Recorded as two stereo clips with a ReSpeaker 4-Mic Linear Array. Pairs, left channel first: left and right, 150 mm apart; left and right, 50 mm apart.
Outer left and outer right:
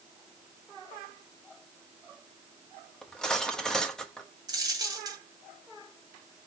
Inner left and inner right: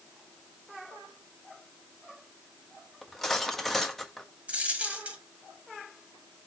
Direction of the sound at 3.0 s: 5° left (ahead or behind).